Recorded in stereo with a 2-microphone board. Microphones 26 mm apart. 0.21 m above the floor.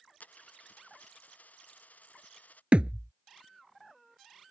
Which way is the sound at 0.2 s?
85° left.